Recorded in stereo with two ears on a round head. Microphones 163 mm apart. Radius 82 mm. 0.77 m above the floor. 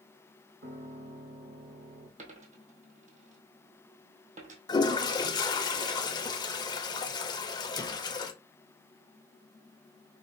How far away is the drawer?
I don't hear a drawer.